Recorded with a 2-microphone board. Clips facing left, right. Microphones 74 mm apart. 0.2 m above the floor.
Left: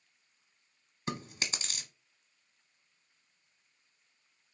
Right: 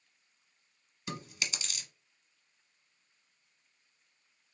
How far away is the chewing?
About 0.7 m.